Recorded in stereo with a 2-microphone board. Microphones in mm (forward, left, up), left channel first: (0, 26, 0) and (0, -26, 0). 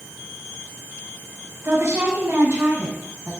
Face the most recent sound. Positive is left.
turn(degrees=-60)  # may be behind; listen again after turning